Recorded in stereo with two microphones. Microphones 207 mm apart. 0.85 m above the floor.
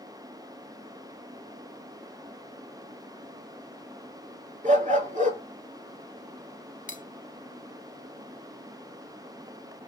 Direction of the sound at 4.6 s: 35° right (ahead or behind).